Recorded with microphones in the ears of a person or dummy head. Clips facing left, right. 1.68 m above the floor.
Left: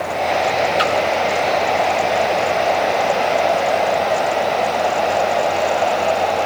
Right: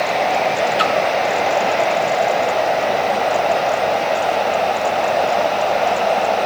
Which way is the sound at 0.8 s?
Centre (ahead or behind).